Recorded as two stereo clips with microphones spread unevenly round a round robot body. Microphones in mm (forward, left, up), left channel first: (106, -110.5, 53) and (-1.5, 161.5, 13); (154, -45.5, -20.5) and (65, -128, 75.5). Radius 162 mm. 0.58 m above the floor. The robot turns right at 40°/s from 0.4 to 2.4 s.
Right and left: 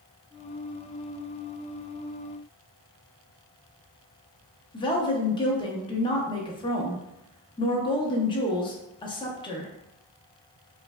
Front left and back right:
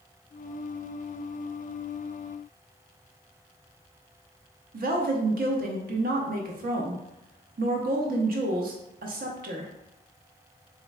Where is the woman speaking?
140° right, 0.6 m.